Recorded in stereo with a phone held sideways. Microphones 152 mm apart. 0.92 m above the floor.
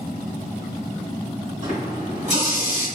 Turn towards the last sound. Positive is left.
turn(degrees=-55)  # may be behind; listen again after turning